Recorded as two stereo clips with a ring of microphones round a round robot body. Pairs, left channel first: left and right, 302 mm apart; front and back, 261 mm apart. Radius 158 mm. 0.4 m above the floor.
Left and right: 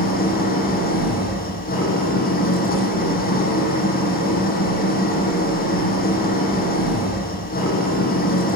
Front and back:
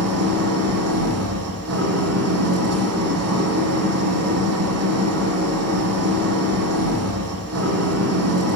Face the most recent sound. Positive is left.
turn(degrees=155)